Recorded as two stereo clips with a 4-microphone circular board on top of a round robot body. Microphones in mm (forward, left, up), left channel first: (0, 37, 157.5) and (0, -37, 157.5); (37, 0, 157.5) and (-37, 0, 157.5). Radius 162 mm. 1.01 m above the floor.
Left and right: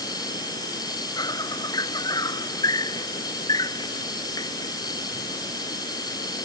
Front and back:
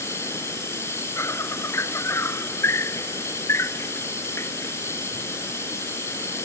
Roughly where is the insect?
Ahead left.